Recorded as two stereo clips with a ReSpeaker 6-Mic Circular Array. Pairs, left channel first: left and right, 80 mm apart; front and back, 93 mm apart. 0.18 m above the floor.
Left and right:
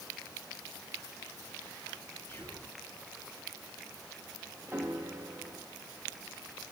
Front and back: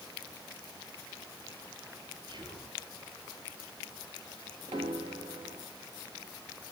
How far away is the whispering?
About 4 m.